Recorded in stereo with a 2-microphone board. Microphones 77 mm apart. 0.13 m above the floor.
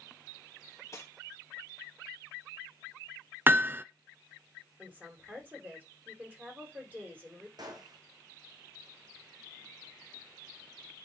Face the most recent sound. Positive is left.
turn(degrees=-60)  # may be behind; listen again after turning